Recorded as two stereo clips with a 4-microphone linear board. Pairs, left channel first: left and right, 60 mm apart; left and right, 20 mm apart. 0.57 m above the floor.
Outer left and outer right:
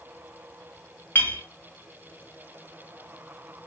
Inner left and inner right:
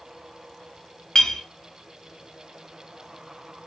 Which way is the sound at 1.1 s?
35° left (ahead or behind).